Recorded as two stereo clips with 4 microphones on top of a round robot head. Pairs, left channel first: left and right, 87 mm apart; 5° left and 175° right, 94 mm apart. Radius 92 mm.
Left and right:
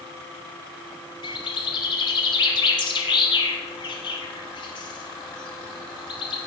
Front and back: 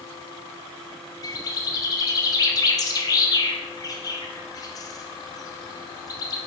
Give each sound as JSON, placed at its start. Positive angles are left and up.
{"t": 1.2, "sound": "a bird", "azimuth_deg": 55, "distance_m": 0.5}